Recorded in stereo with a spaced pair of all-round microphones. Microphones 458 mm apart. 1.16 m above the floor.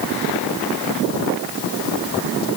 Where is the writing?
I don't hear writing.